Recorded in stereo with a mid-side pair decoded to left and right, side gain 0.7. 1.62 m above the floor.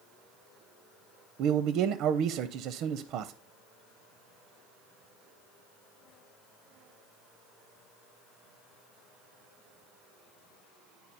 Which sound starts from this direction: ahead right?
A man speaking, at 1.4 s.